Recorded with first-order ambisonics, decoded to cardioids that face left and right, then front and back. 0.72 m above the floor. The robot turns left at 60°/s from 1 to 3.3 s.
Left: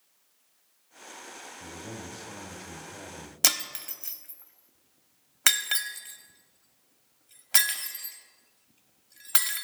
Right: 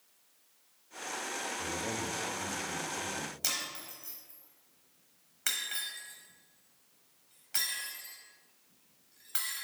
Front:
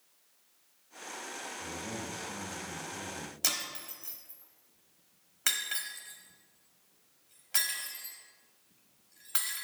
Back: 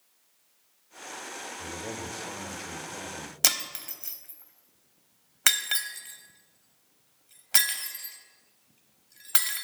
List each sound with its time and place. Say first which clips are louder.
1.6 s a man speaking: right 6 dB, back 3 dB; 115° right, 1.5 m; by 3.3 s 140° left, 1.5 m
3.4 s breaking glass: left 11 dB, back 7 dB; 125° left, 0.8 m